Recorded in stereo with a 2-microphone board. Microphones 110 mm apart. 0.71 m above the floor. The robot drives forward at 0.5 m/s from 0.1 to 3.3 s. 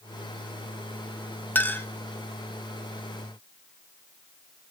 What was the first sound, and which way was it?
A clink, 15° left (ahead or behind).